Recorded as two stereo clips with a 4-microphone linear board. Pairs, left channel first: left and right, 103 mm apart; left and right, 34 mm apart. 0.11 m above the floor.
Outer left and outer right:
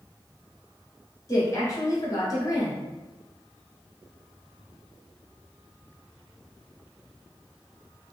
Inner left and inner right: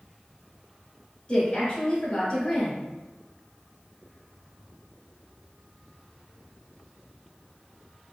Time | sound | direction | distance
1.3 | a woman speaking | 35° left (ahead or behind) | 1.3 m